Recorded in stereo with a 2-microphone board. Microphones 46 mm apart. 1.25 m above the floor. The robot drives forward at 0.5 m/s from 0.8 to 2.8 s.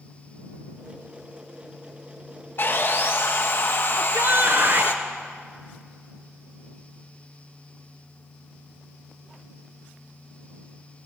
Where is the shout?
50° right (ahead or behind), 0.8 m.